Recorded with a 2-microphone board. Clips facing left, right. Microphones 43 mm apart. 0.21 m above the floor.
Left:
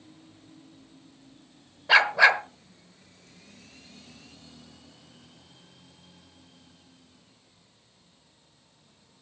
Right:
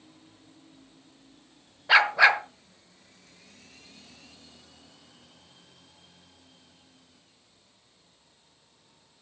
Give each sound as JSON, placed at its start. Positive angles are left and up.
{"t": 1.9, "sound": "a dog barking", "side_deg": -5, "distance_m": 1.1}